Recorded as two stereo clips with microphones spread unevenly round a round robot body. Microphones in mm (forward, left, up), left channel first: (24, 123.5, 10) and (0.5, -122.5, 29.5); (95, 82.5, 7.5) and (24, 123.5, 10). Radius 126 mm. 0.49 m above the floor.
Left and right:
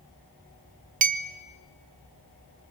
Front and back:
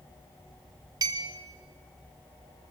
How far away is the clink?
About 0.7 m.